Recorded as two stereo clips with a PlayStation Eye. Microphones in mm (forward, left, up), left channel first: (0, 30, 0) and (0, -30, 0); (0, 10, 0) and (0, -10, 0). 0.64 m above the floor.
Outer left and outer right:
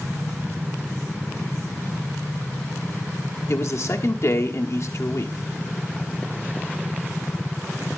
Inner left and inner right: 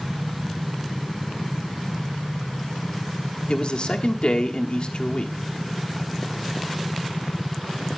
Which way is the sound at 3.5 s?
50° left (ahead or behind).